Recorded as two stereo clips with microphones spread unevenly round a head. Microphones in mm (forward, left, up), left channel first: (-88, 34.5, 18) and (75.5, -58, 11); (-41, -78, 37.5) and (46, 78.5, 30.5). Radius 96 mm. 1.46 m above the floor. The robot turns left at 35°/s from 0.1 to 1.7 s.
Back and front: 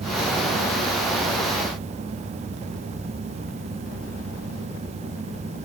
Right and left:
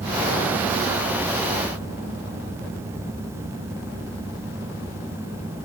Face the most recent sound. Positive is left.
No sound to turn to.